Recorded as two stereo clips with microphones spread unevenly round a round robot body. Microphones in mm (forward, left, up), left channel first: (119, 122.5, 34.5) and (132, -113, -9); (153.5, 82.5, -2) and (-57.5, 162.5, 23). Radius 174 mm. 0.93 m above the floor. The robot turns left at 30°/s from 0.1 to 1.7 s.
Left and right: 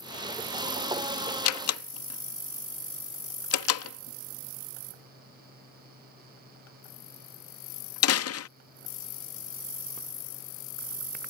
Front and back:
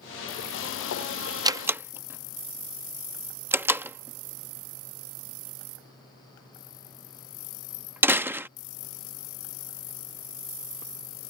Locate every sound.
1.4 s a door slam: 85° left; by 8.5 s 80° left